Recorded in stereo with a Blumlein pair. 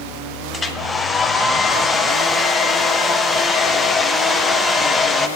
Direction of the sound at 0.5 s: 10° left.